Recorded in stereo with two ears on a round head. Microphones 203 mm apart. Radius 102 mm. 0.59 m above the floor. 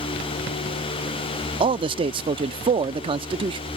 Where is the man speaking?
20° right (ahead or behind).